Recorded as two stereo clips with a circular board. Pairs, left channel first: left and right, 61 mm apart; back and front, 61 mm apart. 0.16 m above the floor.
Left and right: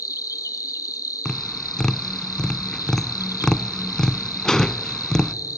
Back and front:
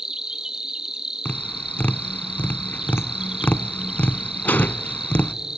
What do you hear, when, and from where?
0.0 s an insect: 80° left, 0.9 m
1.2 s tapping: 165° left, 0.5 m